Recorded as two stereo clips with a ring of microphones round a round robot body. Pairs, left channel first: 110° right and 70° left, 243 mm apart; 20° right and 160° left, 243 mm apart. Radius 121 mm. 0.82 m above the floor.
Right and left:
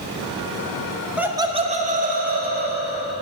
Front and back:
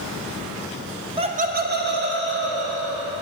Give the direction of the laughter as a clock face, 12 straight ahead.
7 o'clock.